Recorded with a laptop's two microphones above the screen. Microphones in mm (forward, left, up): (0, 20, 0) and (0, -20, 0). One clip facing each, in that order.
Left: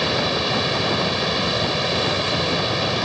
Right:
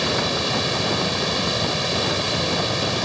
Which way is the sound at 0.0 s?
10° left (ahead or behind).